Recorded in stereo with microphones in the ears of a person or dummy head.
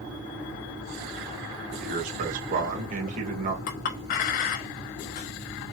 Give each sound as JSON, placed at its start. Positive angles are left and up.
{"t": 1.8, "sound": "a man speaking", "side_deg": -45, "distance_m": 1.9}
{"t": 3.7, "sound": "a clink", "side_deg": 45, "distance_m": 0.7}